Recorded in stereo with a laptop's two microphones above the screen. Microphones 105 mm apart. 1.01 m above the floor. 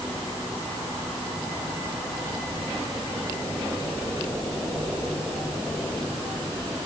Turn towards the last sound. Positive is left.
No sound to turn to.